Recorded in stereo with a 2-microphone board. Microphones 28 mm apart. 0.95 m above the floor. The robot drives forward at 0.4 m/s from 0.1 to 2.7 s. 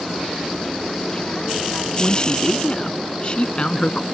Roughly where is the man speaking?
Left.